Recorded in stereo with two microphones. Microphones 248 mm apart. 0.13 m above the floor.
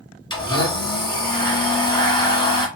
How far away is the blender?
About 1.5 m.